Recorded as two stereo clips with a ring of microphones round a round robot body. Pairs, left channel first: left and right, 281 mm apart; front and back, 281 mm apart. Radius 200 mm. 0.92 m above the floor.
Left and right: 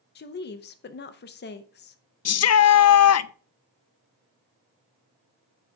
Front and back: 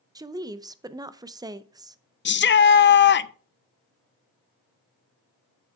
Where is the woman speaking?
110° left, 0.5 m.